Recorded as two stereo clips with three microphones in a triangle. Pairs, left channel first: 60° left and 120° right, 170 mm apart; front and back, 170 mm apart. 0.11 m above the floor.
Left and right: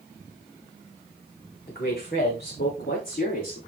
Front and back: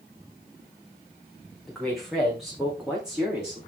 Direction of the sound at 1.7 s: 90° left.